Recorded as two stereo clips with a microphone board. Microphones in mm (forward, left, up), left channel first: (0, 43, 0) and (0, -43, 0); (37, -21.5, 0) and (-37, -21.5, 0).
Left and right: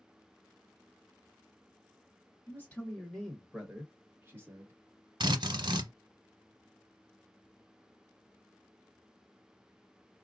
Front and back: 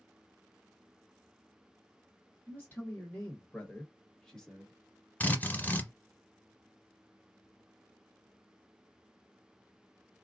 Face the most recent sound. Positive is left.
turn(degrees=-65)